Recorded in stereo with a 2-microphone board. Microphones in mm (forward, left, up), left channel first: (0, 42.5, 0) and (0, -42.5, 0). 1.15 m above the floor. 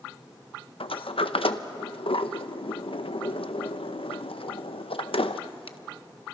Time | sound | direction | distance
0.8 | a sliding door | 80° left | 0.7 m